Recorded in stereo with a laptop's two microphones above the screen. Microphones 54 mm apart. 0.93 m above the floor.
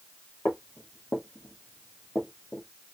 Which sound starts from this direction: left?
Footsteps, at 0.5 s.